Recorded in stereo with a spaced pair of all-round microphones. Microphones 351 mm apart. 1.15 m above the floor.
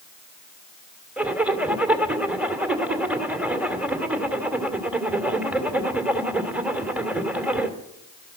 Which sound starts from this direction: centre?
A zipper, at 1.2 s.